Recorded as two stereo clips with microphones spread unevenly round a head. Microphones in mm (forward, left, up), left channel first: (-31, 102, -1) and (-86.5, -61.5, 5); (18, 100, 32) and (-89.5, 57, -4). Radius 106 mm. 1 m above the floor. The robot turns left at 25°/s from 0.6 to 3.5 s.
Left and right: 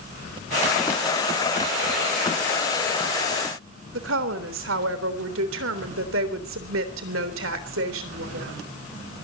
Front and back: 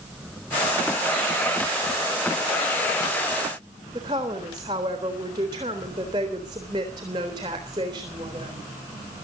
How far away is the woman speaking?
About 3.5 m.